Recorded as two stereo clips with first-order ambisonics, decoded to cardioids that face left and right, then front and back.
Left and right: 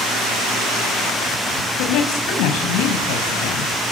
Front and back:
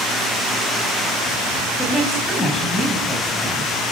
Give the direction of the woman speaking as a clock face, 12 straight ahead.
9 o'clock.